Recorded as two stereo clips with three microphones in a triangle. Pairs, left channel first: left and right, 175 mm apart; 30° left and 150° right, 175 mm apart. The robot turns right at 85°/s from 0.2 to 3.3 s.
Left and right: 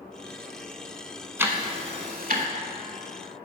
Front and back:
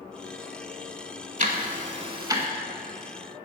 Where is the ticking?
165° right, 0.8 m; by 2.5 s 75° right, 0.8 m.